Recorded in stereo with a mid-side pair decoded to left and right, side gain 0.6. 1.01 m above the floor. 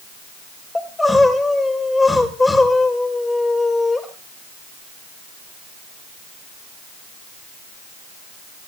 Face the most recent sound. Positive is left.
turn(degrees=15)